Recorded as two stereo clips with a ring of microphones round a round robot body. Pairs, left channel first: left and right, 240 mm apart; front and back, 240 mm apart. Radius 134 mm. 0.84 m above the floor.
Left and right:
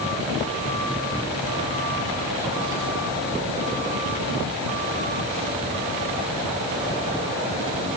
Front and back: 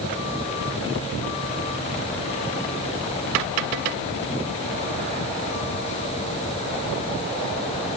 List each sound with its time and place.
Only background noise.